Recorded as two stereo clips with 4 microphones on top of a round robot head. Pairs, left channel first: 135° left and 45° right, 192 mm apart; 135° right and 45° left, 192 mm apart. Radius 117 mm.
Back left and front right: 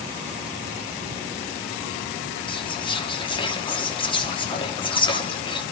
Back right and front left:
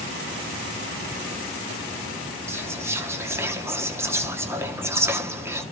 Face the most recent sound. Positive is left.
turn(degrees=110)